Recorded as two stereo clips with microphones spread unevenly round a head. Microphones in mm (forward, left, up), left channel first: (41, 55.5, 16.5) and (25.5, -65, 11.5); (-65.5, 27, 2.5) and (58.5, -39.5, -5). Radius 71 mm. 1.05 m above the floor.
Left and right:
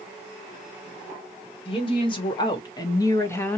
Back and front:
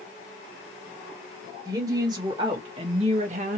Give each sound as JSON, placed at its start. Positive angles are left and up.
{"t": 1.6, "sound": "a woman speaking", "azimuth_deg": 40, "distance_m": 1.8}